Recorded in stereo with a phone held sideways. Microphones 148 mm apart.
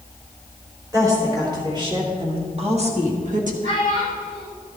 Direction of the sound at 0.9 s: 25° right (ahead or behind).